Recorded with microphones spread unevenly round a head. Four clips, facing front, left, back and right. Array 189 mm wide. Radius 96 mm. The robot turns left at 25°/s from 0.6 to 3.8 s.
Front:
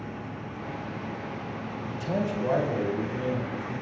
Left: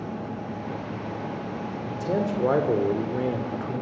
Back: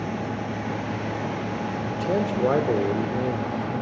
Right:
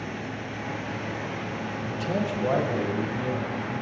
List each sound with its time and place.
1.8 s a man speaking: 155° left, 3 m; by 3.8 s 105° left, 3 m